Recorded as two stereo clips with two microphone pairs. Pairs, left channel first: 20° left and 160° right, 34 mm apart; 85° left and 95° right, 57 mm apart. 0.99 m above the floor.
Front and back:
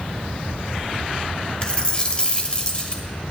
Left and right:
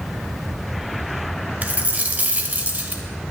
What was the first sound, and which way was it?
A dropped coin, 35° right.